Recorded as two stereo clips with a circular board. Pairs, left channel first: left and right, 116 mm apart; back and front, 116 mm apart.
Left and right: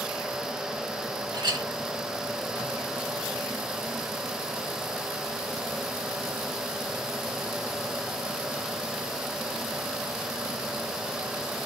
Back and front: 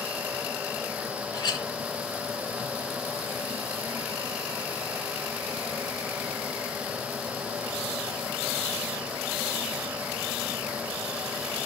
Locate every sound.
1.3 s a clink: 135° right, 0.9 m